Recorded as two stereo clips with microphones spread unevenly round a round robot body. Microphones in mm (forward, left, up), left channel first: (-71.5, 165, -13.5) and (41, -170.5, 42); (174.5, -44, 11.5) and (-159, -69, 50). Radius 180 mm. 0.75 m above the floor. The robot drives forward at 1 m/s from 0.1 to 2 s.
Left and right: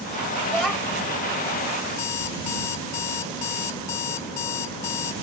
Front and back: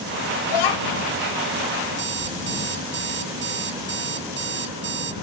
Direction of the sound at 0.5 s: 20° left.